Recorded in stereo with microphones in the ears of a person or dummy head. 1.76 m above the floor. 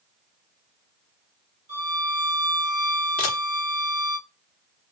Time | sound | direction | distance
1.7 | a violin | 45° right (ahead or behind) | 1.8 m
3.2 | a camera shutter | 35° left (ahead or behind) | 0.8 m